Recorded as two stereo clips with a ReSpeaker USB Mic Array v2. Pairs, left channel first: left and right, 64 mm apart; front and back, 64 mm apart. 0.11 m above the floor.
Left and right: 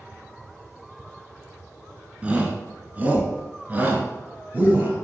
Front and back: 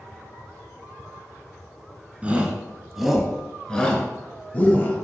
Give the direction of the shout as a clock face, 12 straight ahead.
5 o'clock.